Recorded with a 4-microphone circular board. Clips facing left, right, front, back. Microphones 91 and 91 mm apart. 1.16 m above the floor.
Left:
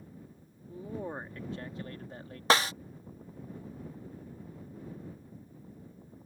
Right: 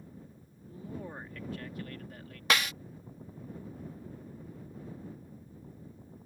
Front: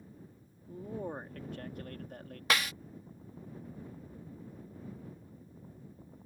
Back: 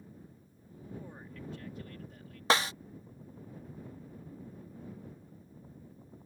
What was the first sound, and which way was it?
A man speaking, 30° left.